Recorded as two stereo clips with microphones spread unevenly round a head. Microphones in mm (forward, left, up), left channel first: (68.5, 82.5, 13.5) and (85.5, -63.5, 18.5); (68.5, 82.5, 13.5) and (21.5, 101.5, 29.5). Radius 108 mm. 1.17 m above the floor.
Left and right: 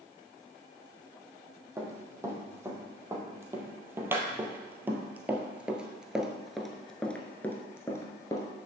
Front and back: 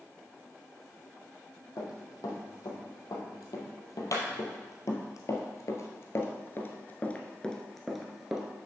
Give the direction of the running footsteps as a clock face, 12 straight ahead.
12 o'clock.